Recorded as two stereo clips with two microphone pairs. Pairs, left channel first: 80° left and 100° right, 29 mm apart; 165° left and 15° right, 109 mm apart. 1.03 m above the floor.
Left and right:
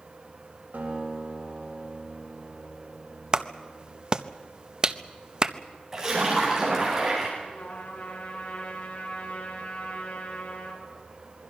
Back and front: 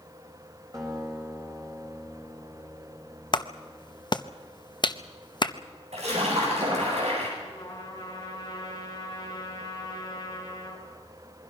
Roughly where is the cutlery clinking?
No cutlery clinking in this recording.